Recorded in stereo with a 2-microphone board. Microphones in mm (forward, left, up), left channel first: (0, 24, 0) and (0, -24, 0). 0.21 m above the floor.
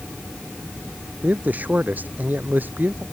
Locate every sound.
1.2 s a man speaking: 35° right (ahead or behind); by 3.0 s 45° right (ahead or behind)